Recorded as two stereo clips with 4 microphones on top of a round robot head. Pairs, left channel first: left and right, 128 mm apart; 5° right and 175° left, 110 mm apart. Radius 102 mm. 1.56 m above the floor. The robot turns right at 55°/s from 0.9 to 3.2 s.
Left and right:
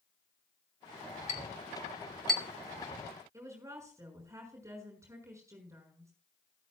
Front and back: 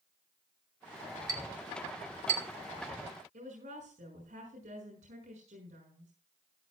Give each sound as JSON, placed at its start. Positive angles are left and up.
{"t": 1.3, "sound": "a clink", "azimuth_deg": 120, "distance_m": 2.5}
{"t": 3.3, "sound": "a woman speaking", "azimuth_deg": -155, "distance_m": 6.0}